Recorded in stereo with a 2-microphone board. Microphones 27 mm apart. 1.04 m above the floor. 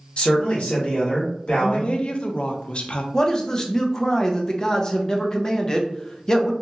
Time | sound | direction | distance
0.2 | a man speaking | 45° left (ahead or behind) | 1.3 m
1.6 | a woman speaking | 45° left (ahead or behind) | 0.5 m
3.1 | a man speaking | 25° left (ahead or behind) | 0.6 m